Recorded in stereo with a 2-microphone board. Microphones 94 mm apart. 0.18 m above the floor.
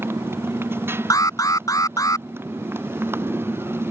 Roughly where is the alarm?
Left.